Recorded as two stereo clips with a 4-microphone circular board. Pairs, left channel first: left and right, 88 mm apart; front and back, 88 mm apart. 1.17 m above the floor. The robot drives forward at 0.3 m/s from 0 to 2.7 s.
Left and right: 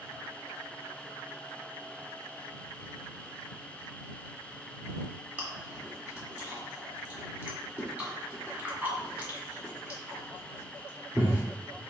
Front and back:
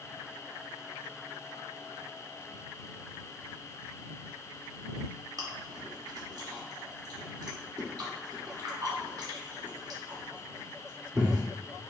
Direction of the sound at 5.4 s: 160° right.